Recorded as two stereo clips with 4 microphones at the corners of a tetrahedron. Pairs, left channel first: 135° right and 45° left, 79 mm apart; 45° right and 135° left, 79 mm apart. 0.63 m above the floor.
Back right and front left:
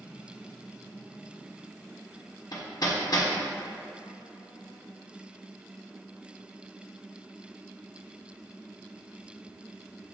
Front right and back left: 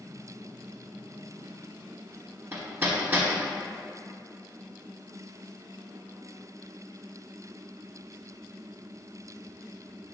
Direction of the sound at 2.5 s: 160° right.